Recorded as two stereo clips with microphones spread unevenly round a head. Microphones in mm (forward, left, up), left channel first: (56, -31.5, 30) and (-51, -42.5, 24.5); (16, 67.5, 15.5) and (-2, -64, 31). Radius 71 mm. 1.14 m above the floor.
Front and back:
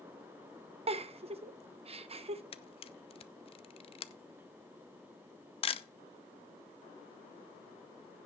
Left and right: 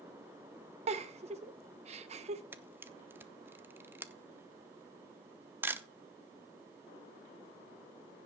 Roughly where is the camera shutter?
Ahead.